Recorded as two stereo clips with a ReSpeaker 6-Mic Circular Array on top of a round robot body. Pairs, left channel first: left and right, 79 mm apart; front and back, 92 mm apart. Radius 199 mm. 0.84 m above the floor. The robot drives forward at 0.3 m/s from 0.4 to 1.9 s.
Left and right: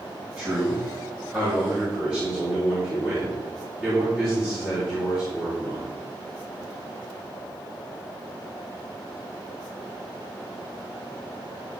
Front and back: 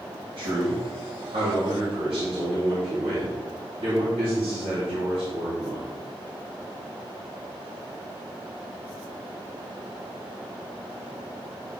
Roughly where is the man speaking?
Behind.